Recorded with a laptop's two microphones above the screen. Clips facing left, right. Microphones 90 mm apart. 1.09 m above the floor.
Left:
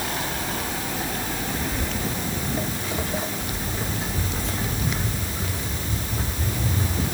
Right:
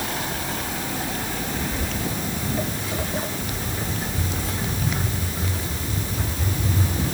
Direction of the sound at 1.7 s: 10° left (ahead or behind).